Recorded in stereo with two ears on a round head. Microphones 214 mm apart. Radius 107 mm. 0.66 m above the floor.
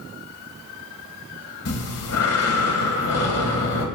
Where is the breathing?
70° left (ahead or behind), 2 m.